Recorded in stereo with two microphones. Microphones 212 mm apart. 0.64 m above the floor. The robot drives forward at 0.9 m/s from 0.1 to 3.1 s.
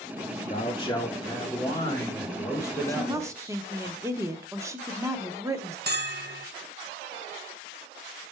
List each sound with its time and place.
0.5 s a man speaking: 30° left (ahead or behind), 0.8 m; by 3.9 s 10° left (ahead or behind), 3 m
2.9 s a woman speaking: 15° right (ahead or behind), 0.7 m
5.9 s a bell: 50° right (ahead or behind), 0.8 m